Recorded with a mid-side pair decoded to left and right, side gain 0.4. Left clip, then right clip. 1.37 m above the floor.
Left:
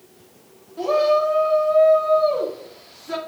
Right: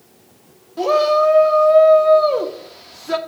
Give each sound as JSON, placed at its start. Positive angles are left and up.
{"t": 0.8, "sound": "a shout", "azimuth_deg": -65, "distance_m": 1.6}